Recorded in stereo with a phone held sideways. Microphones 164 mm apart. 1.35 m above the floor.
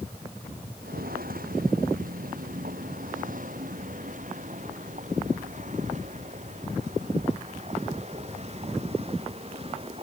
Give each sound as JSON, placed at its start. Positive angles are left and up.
{"t": 0.8, "sound": "footsteps", "side_deg": -65}